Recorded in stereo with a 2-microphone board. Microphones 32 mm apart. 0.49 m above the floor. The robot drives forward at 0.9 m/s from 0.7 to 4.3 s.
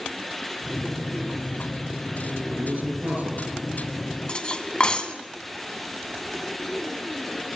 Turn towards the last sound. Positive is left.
turn(degrees=35)  # may be behind; listen again after turning